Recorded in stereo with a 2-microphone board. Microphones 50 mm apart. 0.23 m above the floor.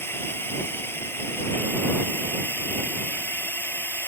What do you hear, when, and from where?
0.0 s a drone: 55° left (ahead or behind)